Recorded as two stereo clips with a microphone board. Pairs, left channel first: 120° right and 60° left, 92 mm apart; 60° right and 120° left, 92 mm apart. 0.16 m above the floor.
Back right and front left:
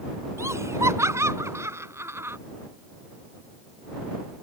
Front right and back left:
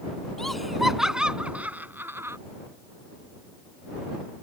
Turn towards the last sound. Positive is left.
turn(degrees=95)